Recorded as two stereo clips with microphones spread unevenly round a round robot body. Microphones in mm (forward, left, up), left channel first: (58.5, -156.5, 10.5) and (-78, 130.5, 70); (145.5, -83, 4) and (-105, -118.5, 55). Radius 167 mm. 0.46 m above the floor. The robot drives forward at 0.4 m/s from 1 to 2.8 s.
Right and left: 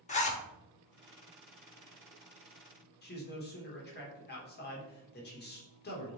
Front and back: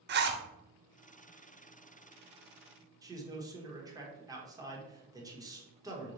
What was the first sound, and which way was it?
A zipper, 120° right.